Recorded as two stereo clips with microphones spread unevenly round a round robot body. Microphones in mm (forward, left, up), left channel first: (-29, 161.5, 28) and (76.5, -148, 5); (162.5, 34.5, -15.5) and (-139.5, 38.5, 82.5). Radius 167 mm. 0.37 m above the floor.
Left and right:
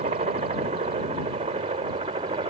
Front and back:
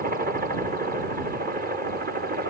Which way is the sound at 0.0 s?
110° right.